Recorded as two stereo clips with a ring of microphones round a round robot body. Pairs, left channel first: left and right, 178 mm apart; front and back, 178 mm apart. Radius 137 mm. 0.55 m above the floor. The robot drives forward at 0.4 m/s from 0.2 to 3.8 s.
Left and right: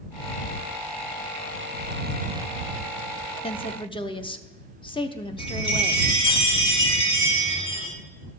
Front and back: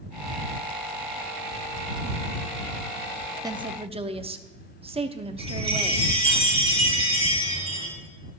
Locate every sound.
3.4 s a woman speaking: 125° left, 0.7 m; by 6.4 s 140° left, 0.7 m
5.4 s a chime: 125° left, 4 m